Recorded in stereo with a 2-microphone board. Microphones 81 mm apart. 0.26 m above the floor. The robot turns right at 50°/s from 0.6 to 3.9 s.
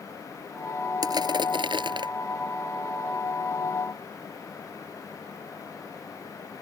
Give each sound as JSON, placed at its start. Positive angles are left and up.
{"t": 1.0, "sound": "crushing", "azimuth_deg": -130}